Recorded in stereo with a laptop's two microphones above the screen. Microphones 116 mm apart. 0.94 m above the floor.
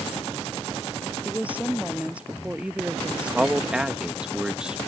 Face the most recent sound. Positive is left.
turn(degrees=-10)  # may be behind; listen again after turning